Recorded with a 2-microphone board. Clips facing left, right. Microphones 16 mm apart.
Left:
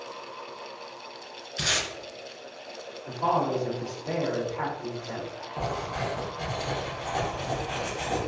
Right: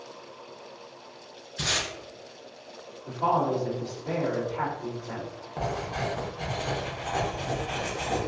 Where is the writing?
35° right (ahead or behind), 1.0 m.